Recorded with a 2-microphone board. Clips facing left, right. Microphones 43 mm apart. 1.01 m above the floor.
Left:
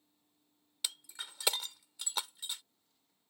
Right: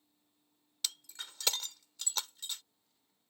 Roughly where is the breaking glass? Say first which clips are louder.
Even; centre.